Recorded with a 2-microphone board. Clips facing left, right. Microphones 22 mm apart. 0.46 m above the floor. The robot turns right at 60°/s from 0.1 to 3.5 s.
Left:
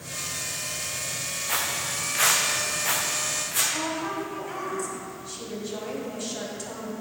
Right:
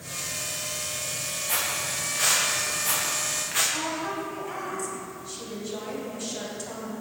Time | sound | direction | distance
1.5 | footsteps | 25° left (ahead or behind) | 1.8 m
3.7 | a woman speaking | centre (ahead or behind) | 2.5 m